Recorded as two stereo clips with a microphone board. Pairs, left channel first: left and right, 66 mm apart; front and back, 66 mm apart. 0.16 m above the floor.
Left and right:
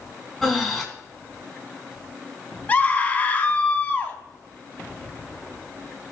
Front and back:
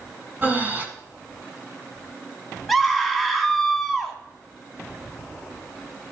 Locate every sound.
0.4 s breathing: straight behind, 1.8 m
2.7 s a scream: 90° left, 1.2 m